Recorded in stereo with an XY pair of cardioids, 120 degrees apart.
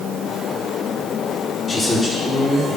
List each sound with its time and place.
1.7 s a man speaking: 25° left, 1.5 m; by 2.8 s 5° right, 2.5 m